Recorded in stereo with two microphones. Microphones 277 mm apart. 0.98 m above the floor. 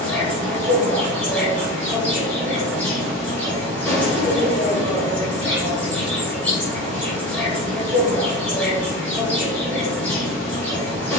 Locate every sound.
0.0 s an insect: 5° left (ahead or behind), 3.5 m